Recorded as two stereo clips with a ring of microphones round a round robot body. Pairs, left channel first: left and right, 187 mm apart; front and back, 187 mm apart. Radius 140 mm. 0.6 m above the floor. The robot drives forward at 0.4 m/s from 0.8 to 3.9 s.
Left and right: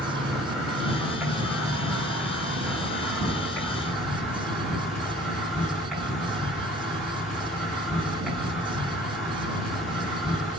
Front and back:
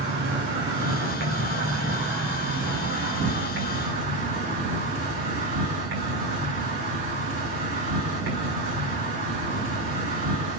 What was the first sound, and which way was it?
An insect, 175° right.